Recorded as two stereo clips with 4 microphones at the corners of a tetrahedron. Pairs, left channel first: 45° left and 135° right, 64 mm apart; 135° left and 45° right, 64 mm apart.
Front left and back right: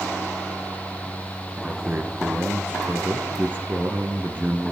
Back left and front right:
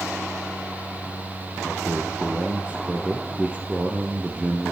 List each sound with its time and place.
1.6 s a man speaking: 100° right, 1.4 m